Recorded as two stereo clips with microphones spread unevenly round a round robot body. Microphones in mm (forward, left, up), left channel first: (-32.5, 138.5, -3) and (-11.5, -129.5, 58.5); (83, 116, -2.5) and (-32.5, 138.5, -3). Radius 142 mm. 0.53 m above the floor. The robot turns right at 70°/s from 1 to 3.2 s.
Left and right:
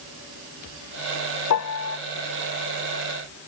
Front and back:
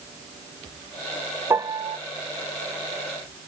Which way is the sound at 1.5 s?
105° left.